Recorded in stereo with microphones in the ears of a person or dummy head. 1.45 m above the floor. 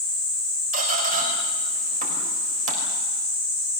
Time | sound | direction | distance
0.7 | a squeak | 50° right (ahead or behind) | 3.5 m